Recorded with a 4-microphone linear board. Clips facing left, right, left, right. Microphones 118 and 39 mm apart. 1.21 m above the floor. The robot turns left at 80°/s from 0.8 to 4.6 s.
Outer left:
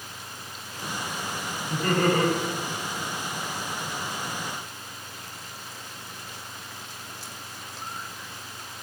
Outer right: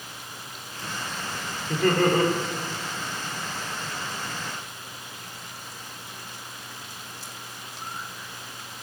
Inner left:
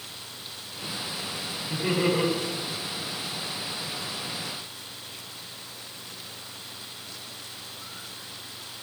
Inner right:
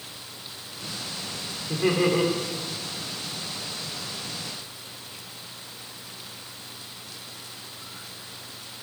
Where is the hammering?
No hammering in this recording.